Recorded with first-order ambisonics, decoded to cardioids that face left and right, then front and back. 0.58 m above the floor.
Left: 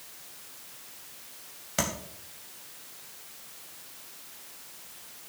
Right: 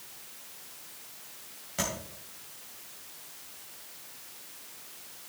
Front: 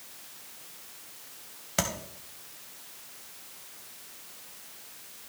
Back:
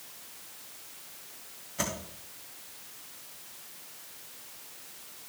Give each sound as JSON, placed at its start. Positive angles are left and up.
{"t": 1.8, "sound": "tapping", "azimuth_deg": 25, "distance_m": 2.5}